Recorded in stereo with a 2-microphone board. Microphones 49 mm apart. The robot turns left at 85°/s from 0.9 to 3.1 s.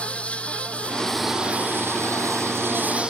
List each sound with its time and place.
0.0 s an insect: 25° left; by 3.1 s 160° right